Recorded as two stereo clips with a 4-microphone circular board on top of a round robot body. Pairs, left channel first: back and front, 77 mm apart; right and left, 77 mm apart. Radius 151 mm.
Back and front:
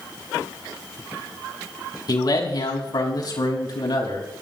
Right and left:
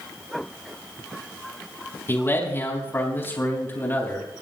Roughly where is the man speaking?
Behind right.